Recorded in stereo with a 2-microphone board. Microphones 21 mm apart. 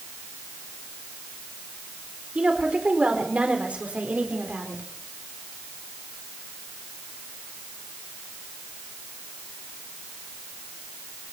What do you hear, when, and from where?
2.4 s a woman speaking: 60° right (ahead or behind), 4 m; by 4.8 s 80° right, 4 m